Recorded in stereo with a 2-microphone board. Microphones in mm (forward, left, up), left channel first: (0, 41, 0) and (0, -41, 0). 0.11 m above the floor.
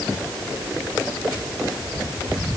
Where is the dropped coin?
No dropped coin in this recording.